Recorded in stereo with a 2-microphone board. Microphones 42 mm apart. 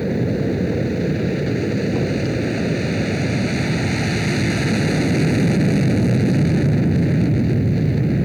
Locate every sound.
0.0 s an aircraft: centre (ahead or behind)